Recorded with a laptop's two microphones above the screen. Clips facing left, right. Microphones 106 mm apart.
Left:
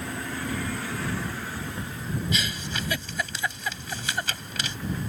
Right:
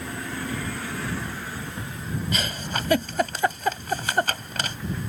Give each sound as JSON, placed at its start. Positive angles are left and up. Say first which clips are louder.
{"t": 2.3, "sound": "a giggle", "louder": "right 2 dB", "side_deg": -50}